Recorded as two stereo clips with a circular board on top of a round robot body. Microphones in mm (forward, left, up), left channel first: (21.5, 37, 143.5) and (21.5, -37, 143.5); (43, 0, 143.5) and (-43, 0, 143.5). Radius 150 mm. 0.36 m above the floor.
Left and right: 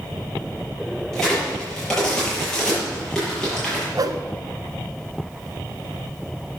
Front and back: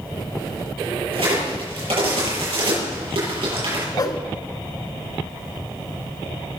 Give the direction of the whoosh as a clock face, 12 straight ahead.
2 o'clock.